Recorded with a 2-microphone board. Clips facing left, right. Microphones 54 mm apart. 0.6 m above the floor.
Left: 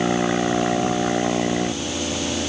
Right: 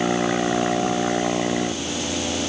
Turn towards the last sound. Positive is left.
No sound to turn to.